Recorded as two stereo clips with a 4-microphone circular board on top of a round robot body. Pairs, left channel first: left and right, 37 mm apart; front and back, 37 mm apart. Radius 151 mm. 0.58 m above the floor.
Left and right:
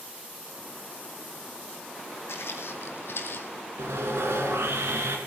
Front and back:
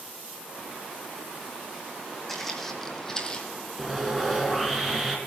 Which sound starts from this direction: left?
Footsteps, at 2.3 s.